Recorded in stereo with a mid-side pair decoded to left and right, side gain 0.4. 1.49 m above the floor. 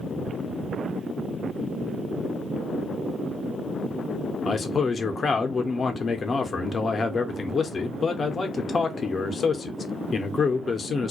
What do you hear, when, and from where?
4.5 s a man speaking: 45° left, 0.7 m